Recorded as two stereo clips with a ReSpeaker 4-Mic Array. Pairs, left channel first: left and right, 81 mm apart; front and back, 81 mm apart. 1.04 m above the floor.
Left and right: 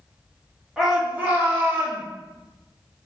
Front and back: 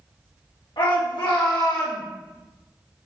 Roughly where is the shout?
Ahead.